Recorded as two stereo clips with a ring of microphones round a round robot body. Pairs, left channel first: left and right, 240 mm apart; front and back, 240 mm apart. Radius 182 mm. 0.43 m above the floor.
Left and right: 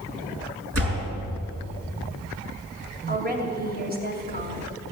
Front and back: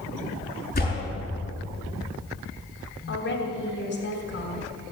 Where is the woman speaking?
45° right, 3 m.